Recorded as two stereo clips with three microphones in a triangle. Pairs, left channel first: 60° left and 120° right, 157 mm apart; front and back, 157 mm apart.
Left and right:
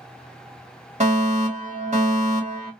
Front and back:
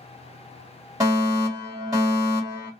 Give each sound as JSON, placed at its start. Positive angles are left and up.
{"t": 1.0, "sound": "a fire alarm", "azimuth_deg": -120, "distance_m": 1.6}